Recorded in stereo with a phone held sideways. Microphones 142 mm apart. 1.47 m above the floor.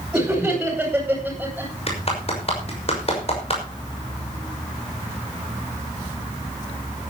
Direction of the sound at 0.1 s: 5° right (ahead or behind).